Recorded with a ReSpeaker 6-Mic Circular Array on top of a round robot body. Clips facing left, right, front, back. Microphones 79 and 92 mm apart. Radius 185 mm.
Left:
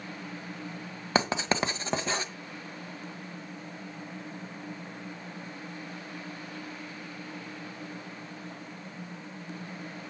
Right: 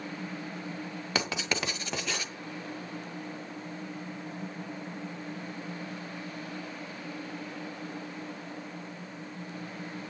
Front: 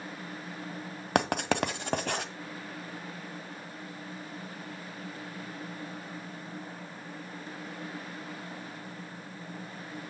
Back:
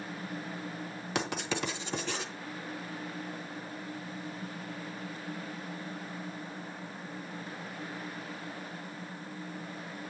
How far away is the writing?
About 1.6 m.